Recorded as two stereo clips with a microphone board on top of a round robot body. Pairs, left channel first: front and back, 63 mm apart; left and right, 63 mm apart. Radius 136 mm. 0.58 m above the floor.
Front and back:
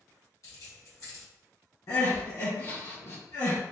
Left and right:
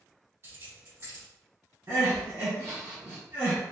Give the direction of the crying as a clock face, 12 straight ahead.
1 o'clock.